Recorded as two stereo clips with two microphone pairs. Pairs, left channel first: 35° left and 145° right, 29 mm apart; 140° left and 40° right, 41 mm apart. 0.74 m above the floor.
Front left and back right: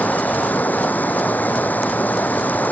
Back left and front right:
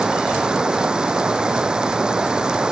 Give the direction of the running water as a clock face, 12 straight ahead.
11 o'clock.